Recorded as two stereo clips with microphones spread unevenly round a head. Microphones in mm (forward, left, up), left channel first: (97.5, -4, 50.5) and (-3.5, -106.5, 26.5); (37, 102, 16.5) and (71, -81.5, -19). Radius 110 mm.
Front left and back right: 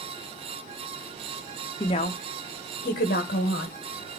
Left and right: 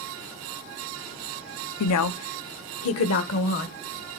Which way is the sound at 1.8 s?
115° left.